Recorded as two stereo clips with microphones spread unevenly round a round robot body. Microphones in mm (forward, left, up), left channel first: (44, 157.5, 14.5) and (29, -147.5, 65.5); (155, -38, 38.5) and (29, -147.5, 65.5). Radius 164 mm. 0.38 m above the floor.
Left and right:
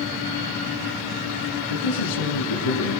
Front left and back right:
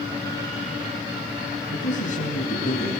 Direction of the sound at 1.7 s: 85° left.